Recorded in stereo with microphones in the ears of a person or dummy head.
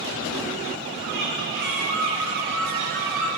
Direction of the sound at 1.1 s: 50° right (ahead or behind).